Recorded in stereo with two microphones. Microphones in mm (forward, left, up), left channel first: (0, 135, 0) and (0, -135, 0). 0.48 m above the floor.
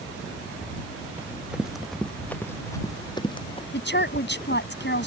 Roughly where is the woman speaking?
Left.